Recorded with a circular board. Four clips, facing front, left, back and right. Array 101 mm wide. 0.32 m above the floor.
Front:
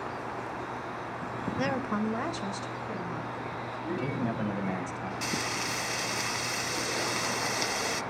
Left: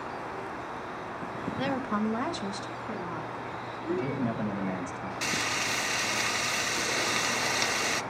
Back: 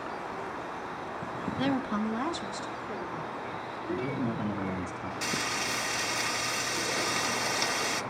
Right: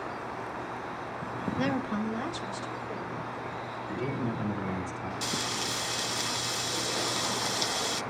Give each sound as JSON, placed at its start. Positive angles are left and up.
{"t": 1.6, "sound": "a woman speaking", "azimuth_deg": -30, "distance_m": 0.9}
{"t": 3.9, "sound": "a man speaking", "azimuth_deg": 35, "distance_m": 2.0}
{"t": 5.2, "sound": "frying", "azimuth_deg": 90, "distance_m": 1.1}